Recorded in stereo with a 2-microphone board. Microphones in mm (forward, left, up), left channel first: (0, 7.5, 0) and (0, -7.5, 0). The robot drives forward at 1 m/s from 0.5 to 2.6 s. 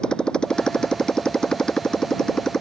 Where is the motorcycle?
80° left; by 2.6 s 60° left (ahead or behind).